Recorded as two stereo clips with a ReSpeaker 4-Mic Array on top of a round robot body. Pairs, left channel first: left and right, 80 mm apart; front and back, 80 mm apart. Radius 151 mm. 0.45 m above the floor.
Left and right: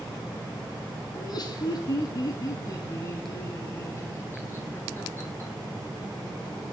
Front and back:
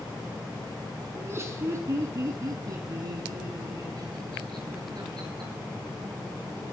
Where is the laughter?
120° left, 5.5 m; by 5.5 s 150° left, 10 m.